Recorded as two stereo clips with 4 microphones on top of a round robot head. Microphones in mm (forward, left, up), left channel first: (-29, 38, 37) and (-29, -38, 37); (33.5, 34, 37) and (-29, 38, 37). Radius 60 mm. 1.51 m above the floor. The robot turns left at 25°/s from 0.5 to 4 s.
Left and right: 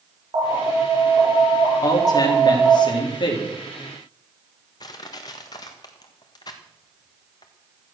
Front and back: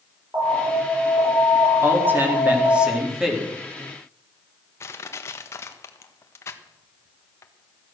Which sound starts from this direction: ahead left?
Crushing, at 4.8 s.